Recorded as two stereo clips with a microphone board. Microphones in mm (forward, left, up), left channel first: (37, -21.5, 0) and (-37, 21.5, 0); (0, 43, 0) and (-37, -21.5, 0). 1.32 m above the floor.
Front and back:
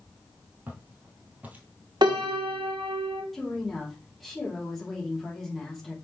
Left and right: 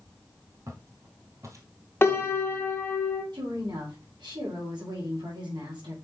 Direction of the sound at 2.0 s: 120° left.